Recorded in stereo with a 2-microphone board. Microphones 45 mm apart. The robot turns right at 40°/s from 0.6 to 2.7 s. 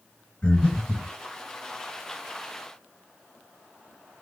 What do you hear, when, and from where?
0.4 s breathing: 25° left (ahead or behind), 2.5 m; by 1.1 s 10° left (ahead or behind), 2.5 m